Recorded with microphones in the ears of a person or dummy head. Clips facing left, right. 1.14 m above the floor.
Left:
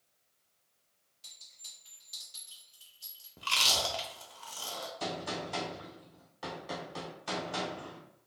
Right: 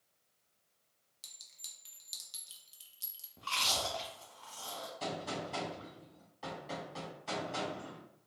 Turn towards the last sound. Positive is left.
turn(degrees=20)  # may be behind; listen again after turning